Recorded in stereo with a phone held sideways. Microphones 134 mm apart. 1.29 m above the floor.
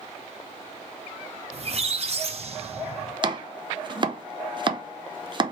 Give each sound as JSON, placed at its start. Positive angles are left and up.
{"t": 1.5, "sound": "a squeak", "side_deg": -50, "distance_m": 0.7}
{"t": 3.2, "sound": "chopping", "side_deg": -35, "distance_m": 0.6}